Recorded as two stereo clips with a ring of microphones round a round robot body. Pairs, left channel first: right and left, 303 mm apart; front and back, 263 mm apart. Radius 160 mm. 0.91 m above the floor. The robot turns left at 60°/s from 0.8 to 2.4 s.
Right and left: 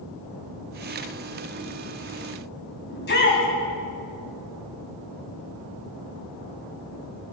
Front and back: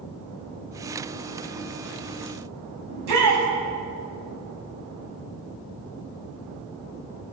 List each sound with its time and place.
2.9 s a shout: 145° right, 7.5 m